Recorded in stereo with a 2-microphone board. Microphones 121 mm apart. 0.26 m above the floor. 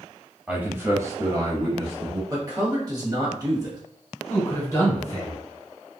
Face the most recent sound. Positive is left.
turn(degrees=25)  # may be behind; listen again after turning